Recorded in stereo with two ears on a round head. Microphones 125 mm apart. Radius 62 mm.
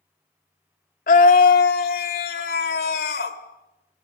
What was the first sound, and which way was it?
A scream, 60° left (ahead or behind).